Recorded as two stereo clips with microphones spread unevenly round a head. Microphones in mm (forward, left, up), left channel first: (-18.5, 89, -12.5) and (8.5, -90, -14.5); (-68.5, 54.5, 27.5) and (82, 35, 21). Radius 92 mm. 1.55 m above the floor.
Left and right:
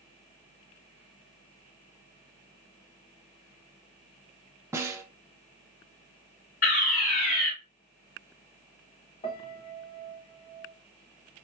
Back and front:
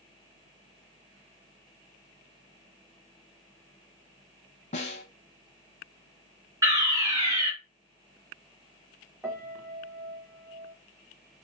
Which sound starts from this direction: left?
A piano, at 9.2 s.